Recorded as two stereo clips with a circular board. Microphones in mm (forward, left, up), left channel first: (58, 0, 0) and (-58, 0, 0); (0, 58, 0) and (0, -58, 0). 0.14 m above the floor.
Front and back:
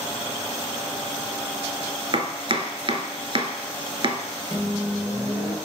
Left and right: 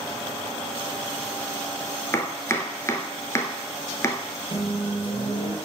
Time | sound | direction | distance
2.1 | chopping | 150° left | 0.7 m
4.5 | a microwave | 70° left | 1.6 m